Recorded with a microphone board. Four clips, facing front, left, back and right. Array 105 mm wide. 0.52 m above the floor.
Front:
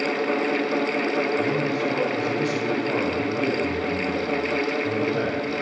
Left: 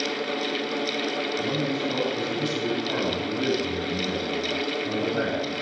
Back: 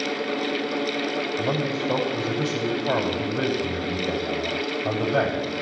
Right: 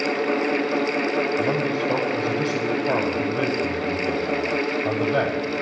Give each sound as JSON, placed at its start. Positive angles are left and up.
{"t": 1.4, "sound": "a man speaking", "azimuth_deg": -135, "distance_m": 8.0}